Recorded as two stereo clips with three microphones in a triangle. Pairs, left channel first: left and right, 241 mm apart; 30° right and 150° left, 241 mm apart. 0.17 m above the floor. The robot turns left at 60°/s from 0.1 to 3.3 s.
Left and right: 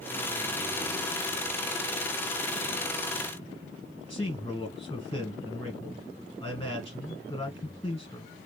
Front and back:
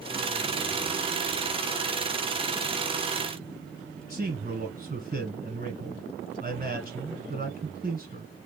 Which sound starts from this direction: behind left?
A man speaking, at 4.1 s.